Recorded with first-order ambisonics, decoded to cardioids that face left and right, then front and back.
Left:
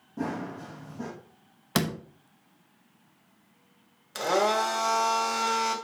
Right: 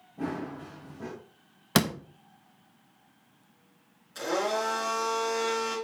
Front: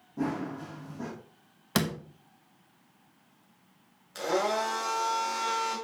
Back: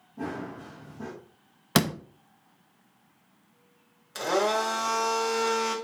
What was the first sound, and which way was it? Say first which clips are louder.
Running footsteps: left 1 dB, front 2 dB; 60° left.